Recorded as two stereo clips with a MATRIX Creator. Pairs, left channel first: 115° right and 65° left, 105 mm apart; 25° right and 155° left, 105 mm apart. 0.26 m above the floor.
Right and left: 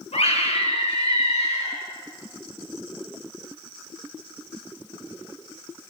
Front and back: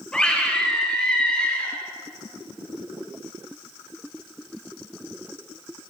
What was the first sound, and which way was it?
A scream, 105° right.